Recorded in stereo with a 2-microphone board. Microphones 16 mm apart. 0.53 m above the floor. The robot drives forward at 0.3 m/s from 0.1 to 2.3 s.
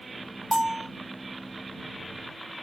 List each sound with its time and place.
0.5 s a bell: 15° right (ahead or behind), 2 m